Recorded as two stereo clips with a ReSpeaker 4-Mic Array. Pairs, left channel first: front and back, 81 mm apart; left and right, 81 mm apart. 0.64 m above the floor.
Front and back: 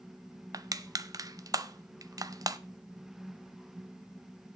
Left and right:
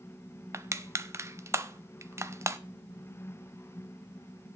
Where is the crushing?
140° right, 0.7 m.